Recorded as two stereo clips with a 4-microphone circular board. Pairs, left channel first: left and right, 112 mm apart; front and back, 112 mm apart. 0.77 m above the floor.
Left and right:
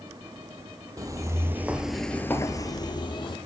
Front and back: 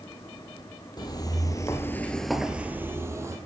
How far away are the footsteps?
About 1.2 m.